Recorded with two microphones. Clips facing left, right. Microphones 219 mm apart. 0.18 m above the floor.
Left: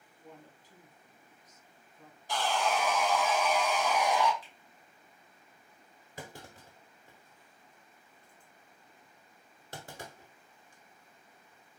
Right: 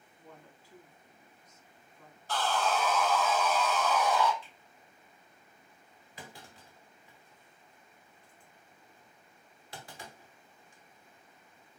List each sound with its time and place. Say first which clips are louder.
0.2 s a woman speaking: left 2 dB; 20° left (ahead or behind), 1.5 m
2.3 s sawing: even; 15° left (ahead or behind), 0.6 m
4.4 s a finger snap: right 1 dB; 30° right (ahead or behind), 2.0 m
6.2 s a clunk: left 4 dB; 45° left (ahead or behind), 0.8 m